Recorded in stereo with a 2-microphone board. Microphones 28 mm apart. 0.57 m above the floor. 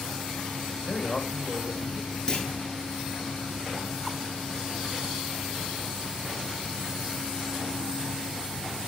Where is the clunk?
20° left (ahead or behind), 3.5 m.